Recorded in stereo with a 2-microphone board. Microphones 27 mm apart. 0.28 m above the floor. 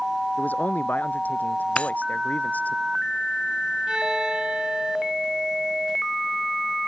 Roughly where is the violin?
Right.